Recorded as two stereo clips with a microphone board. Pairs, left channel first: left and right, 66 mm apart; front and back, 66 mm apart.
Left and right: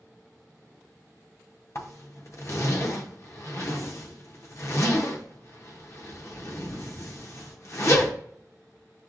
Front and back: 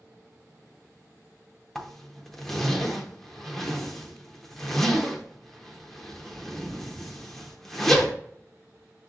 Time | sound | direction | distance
1.8 | a zipper | 85° left | 0.7 m